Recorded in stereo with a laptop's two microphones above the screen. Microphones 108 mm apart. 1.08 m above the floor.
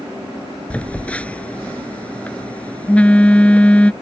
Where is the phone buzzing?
10° left (ahead or behind).